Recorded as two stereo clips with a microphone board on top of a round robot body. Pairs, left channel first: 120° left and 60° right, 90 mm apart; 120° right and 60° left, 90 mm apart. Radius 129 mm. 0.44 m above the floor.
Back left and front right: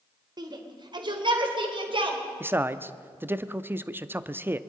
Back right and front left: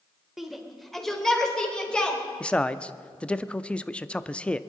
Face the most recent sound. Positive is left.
turn(degrees=-65)